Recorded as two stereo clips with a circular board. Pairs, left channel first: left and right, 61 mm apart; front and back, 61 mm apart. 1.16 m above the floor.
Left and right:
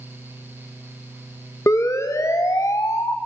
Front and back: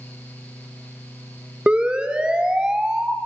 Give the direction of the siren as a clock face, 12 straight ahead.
8 o'clock.